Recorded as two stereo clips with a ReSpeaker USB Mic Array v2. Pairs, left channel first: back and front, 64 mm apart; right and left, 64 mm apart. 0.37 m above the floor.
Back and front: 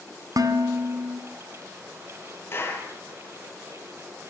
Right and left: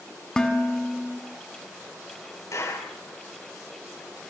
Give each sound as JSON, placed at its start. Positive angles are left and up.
{"t": 0.4, "sound": "dishes clattering", "azimuth_deg": -10, "distance_m": 2.5}
{"t": 2.5, "sound": "a clap", "azimuth_deg": -130, "distance_m": 8.0}